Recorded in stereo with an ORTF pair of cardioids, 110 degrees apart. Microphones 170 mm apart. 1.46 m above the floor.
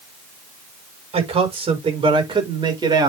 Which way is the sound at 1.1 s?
35° right.